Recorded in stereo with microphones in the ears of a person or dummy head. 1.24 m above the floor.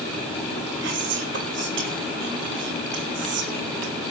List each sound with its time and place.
0.8 s whispering: 70° right (ahead or behind), 3.5 m